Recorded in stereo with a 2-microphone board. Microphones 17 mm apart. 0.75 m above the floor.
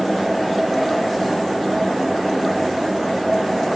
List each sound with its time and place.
Only background noise.